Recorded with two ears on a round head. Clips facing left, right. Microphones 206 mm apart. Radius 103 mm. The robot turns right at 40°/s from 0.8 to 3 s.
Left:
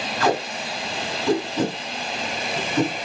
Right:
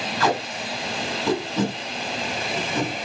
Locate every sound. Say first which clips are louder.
0.2 s tape being pulled: left 2 dB; 85° right, 3.5 m; by 2.9 s centre (ahead or behind), 3.5 m